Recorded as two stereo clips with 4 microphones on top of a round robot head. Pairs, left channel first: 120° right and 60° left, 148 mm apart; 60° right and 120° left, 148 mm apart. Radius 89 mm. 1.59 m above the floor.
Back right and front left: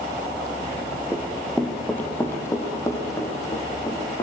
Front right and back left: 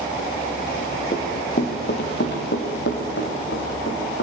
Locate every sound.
1.1 s running footsteps: 20° right, 1.9 m; by 4.2 s 55° right, 5 m